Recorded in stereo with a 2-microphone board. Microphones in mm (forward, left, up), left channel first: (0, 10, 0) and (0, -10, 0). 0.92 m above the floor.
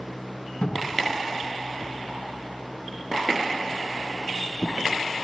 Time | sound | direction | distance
0.6 | a cupboard door | 70° left (ahead or behind) | 6 m